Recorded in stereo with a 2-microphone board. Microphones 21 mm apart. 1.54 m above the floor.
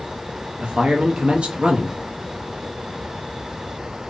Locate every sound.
0.6 s a man speaking: 80° right, 0.7 m